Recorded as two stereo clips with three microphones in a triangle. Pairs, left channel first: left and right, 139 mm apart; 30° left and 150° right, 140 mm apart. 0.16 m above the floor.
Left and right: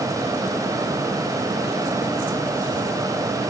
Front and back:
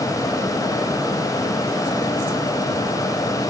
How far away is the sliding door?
I don't hear a sliding door.